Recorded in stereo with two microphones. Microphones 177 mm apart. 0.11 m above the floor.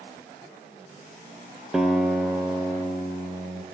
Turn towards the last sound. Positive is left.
turn(degrees=0)  # may be behind; listen again after turning